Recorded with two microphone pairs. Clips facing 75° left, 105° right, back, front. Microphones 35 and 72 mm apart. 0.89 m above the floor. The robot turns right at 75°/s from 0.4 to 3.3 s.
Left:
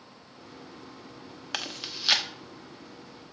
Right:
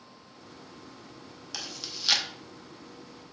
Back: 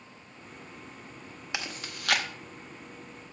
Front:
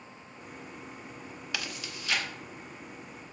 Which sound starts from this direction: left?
Chewing, at 1.5 s.